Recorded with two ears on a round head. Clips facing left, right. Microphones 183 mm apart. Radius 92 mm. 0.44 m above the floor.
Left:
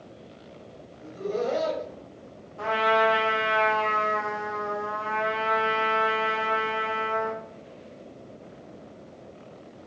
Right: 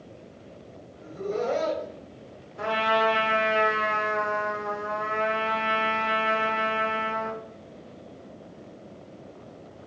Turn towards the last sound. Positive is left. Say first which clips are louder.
# left 1 dB
turn(degrees=-20)  # may be behind; listen again after turning